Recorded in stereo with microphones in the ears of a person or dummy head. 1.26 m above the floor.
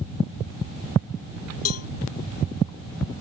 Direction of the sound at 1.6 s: 75° left (ahead or behind).